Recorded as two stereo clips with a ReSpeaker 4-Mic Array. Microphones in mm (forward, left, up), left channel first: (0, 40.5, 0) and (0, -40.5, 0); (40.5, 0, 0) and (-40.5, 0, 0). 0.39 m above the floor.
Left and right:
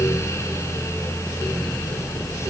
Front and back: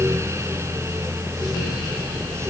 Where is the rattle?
No rattle in this recording.